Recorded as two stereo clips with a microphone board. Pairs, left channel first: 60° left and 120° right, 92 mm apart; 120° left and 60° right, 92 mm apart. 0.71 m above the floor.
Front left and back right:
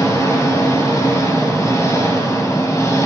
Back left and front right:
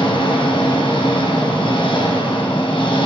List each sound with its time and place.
0.0 s an engine running: 115° left, 2 m